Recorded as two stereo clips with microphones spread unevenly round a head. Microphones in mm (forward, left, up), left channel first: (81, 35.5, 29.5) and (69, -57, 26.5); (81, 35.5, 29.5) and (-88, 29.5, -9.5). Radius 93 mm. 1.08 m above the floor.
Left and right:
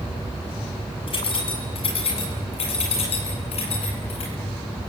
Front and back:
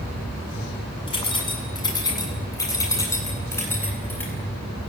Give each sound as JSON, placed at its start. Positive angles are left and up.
{"t": 1.1, "sound": "keys jangling", "azimuth_deg": 60, "distance_m": 7.5}